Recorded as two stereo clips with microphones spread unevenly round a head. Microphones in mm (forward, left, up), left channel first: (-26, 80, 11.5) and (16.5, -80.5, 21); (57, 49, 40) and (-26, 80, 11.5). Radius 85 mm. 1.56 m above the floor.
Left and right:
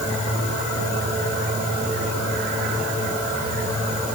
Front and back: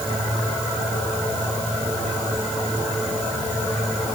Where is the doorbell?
No doorbell in this recording.